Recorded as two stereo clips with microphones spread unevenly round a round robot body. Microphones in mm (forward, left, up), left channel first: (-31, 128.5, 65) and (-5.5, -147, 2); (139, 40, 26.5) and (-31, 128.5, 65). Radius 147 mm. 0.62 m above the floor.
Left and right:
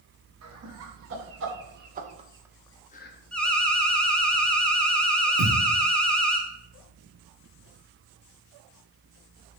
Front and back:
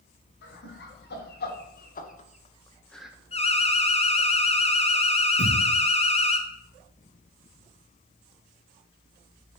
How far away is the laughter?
About 3 m.